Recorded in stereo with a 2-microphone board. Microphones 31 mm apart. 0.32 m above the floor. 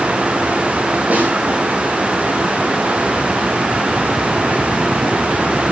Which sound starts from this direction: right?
A snare drum, at 1.1 s.